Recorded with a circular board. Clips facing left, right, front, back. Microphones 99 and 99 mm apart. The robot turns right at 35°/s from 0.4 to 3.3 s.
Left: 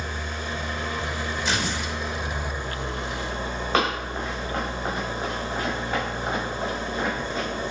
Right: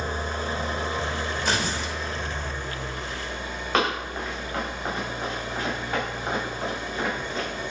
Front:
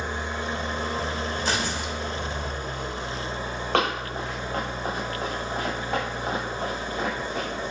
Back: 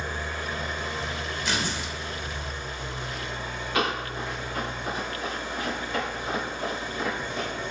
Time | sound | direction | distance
0.0 | an engine running | 60° right | 0.7 m
1.4 | tearing paper | 50° right | 1.1 m
3.7 | running footsteps | straight ahead | 4 m